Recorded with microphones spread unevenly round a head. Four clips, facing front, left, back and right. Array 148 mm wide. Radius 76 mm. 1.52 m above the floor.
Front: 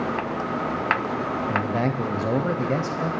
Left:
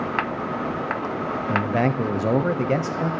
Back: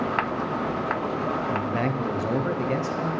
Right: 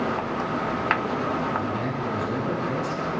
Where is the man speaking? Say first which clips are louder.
Left 5 dB, front 2 dB; 60° left, 0.8 m.